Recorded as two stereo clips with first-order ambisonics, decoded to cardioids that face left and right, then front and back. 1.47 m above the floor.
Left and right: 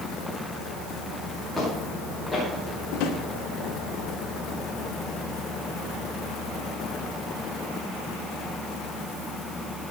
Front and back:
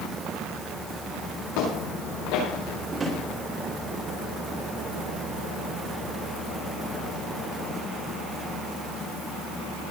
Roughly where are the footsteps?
Ahead.